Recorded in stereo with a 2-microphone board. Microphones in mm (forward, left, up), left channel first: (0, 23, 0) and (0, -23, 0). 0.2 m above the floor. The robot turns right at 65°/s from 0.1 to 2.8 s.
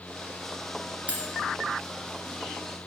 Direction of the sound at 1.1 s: 30° right (ahead or behind).